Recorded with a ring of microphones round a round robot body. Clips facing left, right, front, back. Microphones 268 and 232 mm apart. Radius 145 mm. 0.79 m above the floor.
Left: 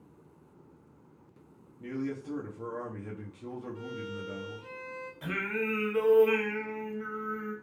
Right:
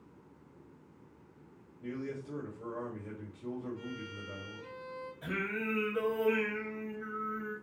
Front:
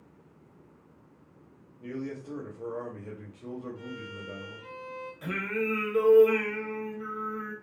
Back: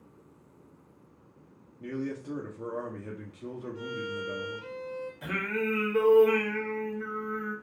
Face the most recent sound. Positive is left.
turn(degrees=85)